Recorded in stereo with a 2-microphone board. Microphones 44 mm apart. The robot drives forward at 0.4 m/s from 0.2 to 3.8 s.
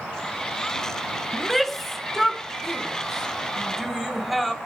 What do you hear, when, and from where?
1.3 s a shout: 5° left (ahead or behind), 0.7 m; by 4.5 s centre (ahead or behind), 1.4 m